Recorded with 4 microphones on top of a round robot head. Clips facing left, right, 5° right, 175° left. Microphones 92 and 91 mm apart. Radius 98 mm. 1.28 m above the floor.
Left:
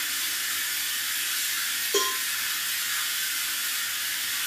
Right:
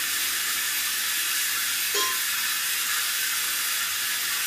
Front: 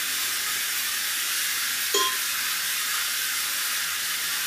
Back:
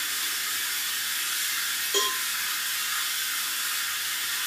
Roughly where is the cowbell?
Ahead left.